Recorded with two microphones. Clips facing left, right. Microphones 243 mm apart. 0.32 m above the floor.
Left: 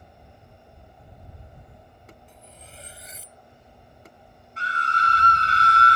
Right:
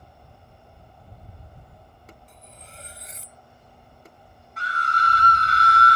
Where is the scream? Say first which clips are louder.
Right 1 dB; 25° left (ahead or behind).